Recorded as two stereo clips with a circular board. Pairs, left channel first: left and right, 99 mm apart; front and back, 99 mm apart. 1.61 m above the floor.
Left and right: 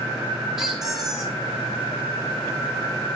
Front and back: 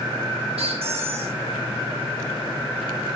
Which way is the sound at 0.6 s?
175° right.